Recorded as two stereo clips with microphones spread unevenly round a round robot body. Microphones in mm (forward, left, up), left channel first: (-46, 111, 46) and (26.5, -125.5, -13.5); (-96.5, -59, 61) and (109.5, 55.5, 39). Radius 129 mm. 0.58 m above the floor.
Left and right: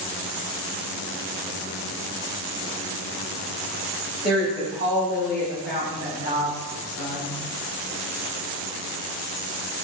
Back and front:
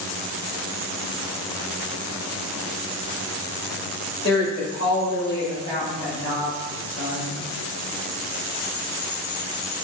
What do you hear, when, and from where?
4.2 s a woman speaking: 165° left, 1.8 m; by 7.3 s 90° left, 1.2 m